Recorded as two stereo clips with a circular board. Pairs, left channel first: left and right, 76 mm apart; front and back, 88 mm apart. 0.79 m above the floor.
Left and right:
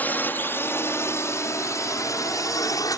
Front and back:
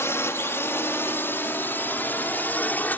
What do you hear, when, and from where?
0.0 s a drone: 40° left; by 3.0 s 65° left